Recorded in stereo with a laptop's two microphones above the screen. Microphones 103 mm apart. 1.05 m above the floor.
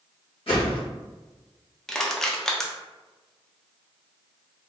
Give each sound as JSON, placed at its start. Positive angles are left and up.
{"t": 0.5, "sound": "a whoosh", "side_deg": 60, "distance_m": 1.5}
{"t": 1.9, "sound": "crushing", "side_deg": 5, "distance_m": 0.6}